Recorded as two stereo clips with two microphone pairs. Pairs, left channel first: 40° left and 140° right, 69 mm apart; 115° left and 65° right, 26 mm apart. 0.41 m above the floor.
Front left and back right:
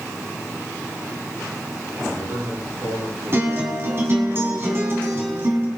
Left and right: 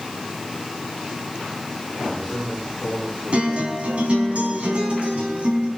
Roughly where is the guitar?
Right.